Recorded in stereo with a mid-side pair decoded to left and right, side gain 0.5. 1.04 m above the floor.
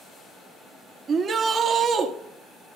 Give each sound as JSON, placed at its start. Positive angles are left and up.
{"t": 1.1, "sound": "a shout", "azimuth_deg": -45, "distance_m": 1.2}